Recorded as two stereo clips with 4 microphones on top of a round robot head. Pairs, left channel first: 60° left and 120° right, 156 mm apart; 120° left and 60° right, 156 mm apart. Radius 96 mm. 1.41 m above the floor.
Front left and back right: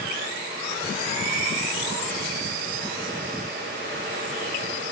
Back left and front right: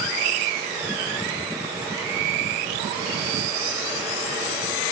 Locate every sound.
Only background noise.